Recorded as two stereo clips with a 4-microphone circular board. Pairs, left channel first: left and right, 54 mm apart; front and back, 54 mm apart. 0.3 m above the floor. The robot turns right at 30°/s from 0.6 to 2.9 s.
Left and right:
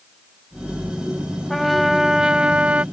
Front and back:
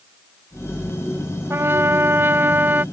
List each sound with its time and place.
1.5 s a trumpet: 175° left; by 2.8 s 145° right